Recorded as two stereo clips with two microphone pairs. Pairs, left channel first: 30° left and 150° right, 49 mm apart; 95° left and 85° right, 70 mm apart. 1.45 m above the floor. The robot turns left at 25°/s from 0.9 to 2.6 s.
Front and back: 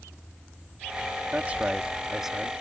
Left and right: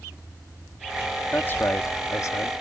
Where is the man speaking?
155° left; by 2.5 s 125° left.